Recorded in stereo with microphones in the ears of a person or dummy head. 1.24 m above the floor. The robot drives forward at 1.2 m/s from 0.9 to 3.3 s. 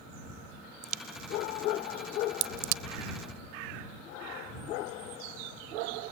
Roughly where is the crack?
Right.